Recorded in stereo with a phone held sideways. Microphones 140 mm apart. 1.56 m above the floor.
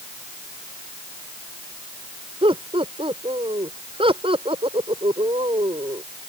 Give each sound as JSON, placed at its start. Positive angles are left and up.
{"t": 2.4, "sound": "laughter", "side_deg": -40}